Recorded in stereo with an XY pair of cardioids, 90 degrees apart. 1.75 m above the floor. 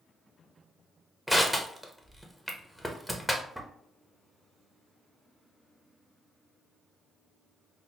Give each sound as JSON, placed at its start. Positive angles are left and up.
{"t": 1.3, "sound": "crushing", "azimuth_deg": -5, "distance_m": 0.8}